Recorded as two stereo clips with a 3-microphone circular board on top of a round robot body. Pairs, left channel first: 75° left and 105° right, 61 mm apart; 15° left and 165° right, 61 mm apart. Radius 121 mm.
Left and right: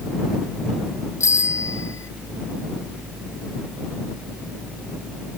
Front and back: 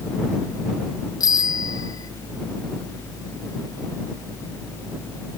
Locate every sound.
1.2 s a bicycle bell: 30° left